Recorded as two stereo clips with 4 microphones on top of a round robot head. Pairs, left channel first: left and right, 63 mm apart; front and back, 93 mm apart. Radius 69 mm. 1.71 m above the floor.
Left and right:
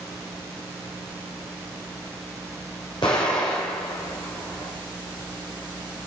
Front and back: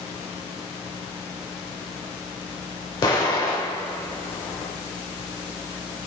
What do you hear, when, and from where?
3.0 s an explosion: 40° left, 2.5 m